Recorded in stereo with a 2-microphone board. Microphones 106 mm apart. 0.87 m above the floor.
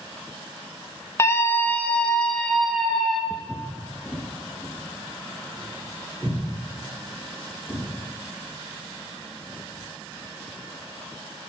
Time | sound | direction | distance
1.2 | a scream | 25° left (ahead or behind) | 0.6 m
3.3 | footsteps | 5° right (ahead or behind) | 1.3 m